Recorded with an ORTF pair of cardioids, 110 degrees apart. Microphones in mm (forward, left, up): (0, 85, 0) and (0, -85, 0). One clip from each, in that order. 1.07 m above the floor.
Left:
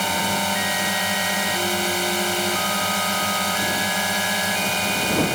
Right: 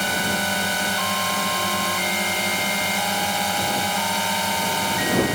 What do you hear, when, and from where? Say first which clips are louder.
0.0 s a drone: even; 15° left